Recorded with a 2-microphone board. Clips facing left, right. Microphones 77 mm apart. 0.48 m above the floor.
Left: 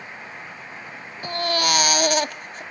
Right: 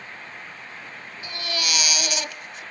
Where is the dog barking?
No dog barking in this recording.